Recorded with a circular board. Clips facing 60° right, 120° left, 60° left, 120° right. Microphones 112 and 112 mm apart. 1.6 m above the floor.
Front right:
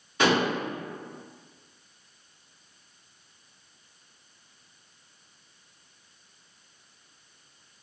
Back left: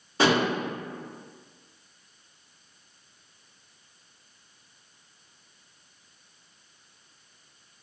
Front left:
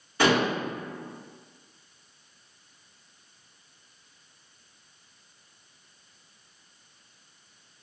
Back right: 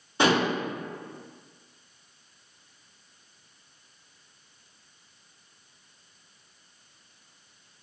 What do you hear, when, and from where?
0.2 s dishes clattering: 175° left, 1.5 m